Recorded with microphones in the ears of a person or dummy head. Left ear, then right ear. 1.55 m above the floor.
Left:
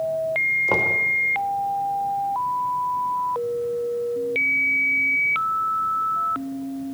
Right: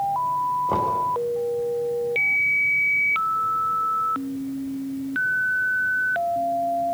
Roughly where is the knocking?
Left.